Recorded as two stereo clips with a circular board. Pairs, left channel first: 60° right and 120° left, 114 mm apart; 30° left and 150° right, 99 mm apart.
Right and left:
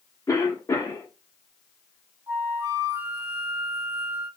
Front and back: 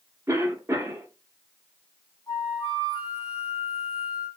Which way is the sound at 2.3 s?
75° left.